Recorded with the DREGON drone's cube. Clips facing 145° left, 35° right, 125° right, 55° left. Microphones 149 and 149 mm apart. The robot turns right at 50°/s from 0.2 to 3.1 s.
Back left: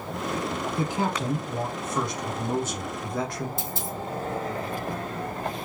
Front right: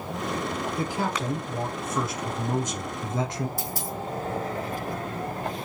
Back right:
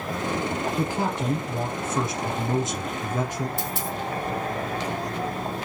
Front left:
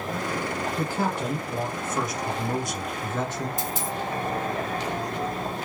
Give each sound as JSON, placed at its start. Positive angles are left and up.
{"t": 0.8, "sound": "a man speaking", "azimuth_deg": 175, "distance_m": 1.4}
{"t": 3.6, "sound": "a dropped coin", "azimuth_deg": -150, "distance_m": 1.9}